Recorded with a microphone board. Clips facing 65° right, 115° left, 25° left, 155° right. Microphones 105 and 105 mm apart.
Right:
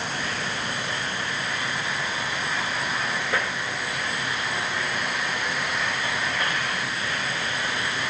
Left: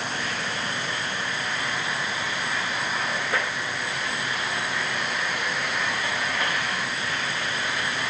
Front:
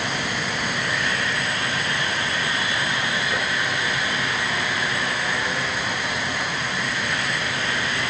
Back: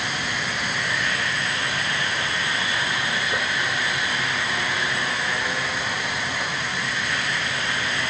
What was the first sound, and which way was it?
Only background noise.